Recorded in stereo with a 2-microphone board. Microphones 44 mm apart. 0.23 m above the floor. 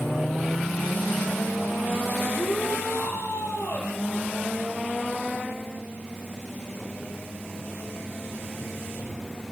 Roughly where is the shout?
Left.